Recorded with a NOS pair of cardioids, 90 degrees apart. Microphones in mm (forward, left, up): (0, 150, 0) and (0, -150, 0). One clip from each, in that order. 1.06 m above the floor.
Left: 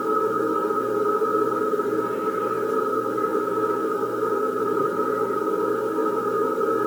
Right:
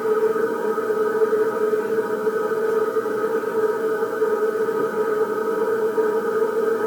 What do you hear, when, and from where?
0.0 s a machine running: 15° right, 1.3 m